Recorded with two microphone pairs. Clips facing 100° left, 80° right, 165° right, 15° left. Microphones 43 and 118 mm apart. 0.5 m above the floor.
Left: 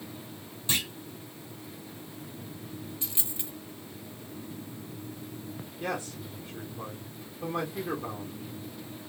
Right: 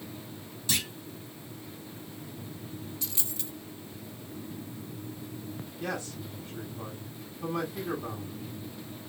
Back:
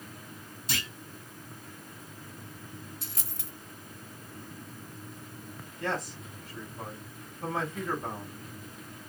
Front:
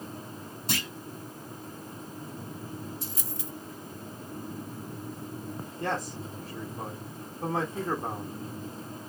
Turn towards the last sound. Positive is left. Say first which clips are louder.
# left 2 dB, front 1 dB
turn(degrees=50)